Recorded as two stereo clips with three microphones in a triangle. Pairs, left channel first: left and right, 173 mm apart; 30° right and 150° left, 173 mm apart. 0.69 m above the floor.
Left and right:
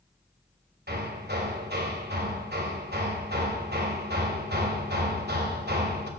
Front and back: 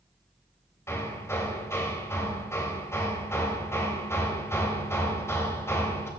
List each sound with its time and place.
0.9 s hammering: 105° right, 3 m